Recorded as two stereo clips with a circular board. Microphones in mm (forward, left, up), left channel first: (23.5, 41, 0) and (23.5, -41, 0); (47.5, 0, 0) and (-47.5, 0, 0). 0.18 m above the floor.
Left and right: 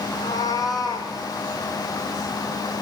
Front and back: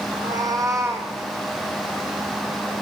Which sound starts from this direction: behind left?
A cat meowing, at 0.1 s.